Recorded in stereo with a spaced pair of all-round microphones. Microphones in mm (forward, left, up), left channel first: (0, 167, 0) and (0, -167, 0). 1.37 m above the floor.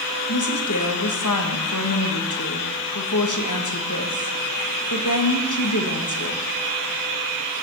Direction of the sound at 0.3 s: 60° left (ahead or behind).